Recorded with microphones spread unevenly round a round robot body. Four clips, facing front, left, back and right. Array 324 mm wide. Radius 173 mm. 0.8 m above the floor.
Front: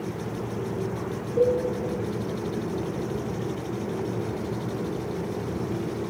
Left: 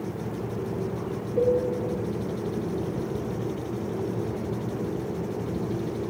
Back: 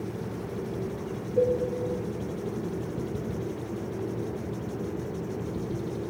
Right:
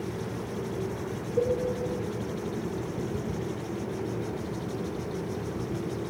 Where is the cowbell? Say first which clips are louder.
Left 4 dB, front 2 dB; 155° left, 2.5 m.